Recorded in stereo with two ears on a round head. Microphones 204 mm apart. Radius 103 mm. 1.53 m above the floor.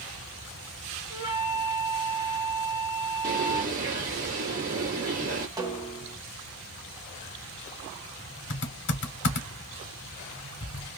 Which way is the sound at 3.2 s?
35° right (ahead or behind).